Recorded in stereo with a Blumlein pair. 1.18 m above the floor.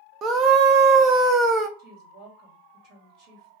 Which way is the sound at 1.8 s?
40° right.